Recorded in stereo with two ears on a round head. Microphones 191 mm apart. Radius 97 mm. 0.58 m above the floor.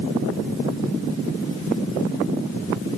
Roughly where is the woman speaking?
No woman speaking in this recording.